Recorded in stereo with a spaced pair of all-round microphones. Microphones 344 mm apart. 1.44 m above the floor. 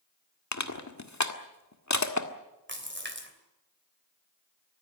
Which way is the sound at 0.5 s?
50° left (ahead or behind).